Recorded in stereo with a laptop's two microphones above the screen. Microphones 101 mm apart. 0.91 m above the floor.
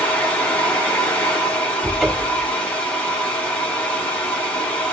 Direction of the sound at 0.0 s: 15° left (ahead or behind).